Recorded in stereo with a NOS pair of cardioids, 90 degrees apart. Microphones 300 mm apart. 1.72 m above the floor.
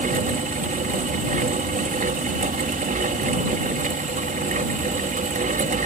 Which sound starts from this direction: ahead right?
A fan, at 0.0 s.